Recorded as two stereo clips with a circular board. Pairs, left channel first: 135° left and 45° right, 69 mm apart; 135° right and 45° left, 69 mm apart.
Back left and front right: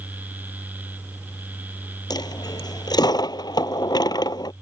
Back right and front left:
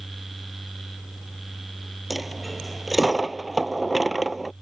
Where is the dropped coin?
135° left.